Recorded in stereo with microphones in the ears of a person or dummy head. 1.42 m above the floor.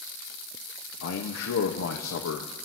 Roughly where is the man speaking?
Left.